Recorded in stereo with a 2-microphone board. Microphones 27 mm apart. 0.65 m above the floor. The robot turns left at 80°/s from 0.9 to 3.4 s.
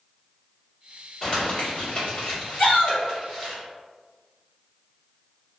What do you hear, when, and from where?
1.2 s crumpling: 10° left (ahead or behind), 2.0 m; by 3.6 s 5° right (ahead or behind), 2.0 m
2.6 s a shout: 100° left, 1.5 m; by 3.0 s 70° left, 1.5 m